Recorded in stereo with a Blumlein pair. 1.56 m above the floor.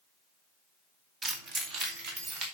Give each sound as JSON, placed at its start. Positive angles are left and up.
{"t": 1.2, "sound": "keys jangling", "azimuth_deg": -20, "distance_m": 1.7}